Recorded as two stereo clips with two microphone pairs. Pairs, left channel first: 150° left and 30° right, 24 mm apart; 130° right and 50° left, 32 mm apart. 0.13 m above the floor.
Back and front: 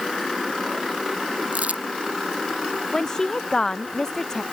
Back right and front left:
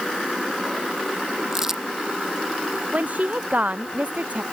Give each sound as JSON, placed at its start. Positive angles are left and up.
{"t": 1.5, "sound": "crumpling", "azimuth_deg": -30}
{"t": 2.9, "sound": "a woman speaking", "azimuth_deg": 85}